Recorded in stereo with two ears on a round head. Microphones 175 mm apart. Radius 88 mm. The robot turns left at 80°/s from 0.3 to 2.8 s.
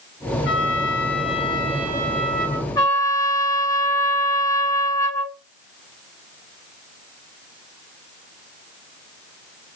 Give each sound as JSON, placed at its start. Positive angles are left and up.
{"t": 0.5, "sound": "a trumpet", "azimuth_deg": 105, "distance_m": 1.2}
{"t": 2.8, "sound": "a trumpet", "side_deg": 15, "distance_m": 1.2}